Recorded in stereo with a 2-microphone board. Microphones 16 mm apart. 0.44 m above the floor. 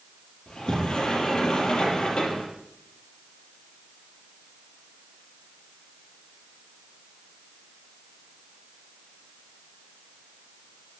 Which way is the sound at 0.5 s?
70° left (ahead or behind).